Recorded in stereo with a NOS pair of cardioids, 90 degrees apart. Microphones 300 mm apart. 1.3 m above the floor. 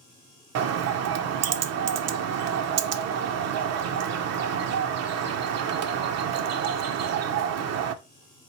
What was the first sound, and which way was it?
A bird, 60° right.